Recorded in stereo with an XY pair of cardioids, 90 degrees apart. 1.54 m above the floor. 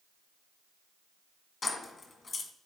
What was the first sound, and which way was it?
Keys jangling, 50° left.